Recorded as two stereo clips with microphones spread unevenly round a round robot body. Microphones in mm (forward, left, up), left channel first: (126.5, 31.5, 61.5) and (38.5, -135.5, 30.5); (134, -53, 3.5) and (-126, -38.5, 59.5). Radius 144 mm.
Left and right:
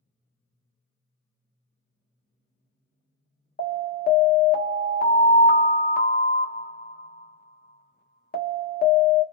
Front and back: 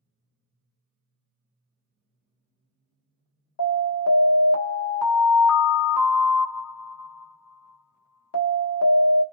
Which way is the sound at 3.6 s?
15° left.